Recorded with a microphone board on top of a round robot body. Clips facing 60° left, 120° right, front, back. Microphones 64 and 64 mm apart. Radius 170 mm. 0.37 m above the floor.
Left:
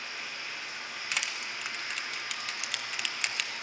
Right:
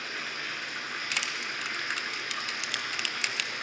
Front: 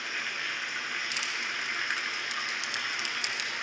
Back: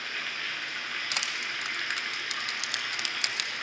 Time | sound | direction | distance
0.0 | running water | 80° right | 0.7 m
1.1 | crushing | 145° left | 0.7 m